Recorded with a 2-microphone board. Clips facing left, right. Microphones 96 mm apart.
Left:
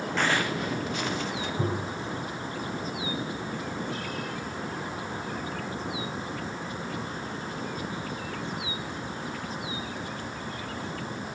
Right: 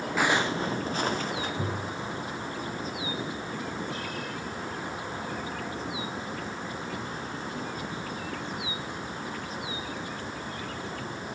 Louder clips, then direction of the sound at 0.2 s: Right 2 dB; 5° right (ahead or behind).